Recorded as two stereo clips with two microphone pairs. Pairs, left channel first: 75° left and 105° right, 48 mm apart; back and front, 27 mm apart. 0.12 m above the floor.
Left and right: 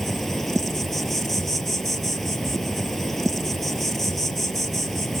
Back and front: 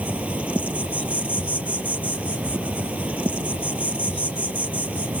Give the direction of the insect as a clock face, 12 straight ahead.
12 o'clock.